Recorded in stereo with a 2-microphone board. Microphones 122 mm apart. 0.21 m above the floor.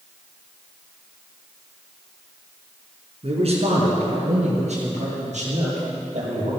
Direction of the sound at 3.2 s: 55° right (ahead or behind).